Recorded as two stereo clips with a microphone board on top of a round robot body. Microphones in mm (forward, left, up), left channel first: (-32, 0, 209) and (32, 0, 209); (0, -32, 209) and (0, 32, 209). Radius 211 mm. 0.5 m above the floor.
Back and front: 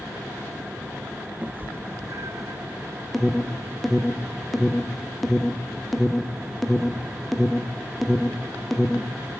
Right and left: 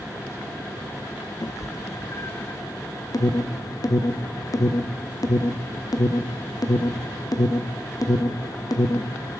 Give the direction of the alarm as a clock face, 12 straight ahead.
3 o'clock.